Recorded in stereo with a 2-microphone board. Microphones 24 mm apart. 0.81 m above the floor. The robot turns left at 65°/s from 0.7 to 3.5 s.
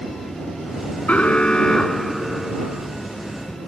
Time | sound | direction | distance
1.1 | an alarm | 70° left | ?